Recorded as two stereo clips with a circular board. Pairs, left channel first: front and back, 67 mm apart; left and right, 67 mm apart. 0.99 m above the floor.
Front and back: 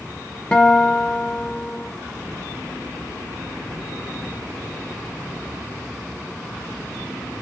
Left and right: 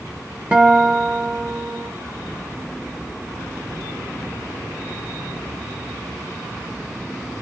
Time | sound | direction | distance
0.5 | a guitar | 50° right | 0.8 m